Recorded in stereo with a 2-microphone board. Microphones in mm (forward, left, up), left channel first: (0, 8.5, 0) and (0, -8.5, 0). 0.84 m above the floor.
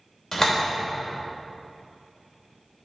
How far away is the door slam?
About 2.5 m.